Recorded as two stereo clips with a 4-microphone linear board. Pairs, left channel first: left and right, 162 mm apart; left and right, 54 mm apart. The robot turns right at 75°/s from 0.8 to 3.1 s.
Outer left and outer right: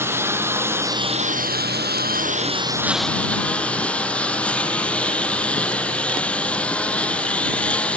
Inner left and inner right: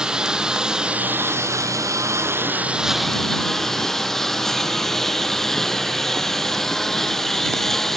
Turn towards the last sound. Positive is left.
turn(degrees=5)